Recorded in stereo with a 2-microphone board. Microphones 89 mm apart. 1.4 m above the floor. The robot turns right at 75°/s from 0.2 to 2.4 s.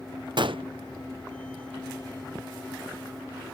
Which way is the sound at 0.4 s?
60° right (ahead or behind).